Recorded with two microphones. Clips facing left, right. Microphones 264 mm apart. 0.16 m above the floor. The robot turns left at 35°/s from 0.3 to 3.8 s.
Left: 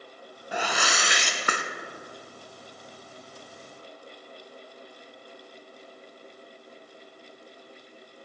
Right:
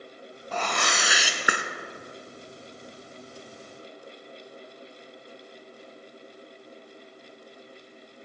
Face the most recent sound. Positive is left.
turn(degrees=-100)